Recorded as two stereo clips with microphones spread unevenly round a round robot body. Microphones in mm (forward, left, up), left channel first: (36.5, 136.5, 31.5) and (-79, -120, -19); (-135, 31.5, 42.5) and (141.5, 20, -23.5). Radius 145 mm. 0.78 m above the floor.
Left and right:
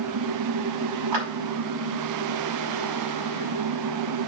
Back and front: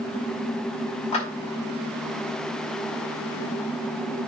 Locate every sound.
1.1 s a clap: 110° right, 4.5 m